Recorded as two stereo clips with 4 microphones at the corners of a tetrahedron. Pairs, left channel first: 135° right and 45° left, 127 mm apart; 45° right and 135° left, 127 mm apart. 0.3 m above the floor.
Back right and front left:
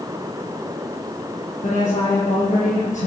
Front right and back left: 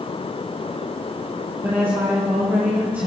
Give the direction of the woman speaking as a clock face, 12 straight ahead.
5 o'clock.